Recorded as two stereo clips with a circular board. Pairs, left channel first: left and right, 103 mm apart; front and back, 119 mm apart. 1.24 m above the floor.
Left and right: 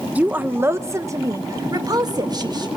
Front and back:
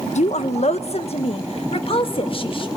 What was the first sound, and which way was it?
A woman speaking, 10° right.